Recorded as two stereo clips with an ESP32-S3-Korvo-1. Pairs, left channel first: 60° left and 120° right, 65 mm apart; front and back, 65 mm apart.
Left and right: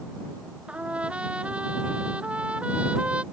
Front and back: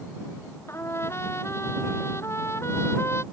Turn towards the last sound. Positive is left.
turn(degrees=-50)